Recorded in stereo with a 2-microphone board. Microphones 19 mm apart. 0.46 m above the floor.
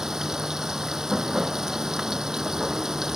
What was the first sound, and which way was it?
Running water, 25° right (ahead or behind).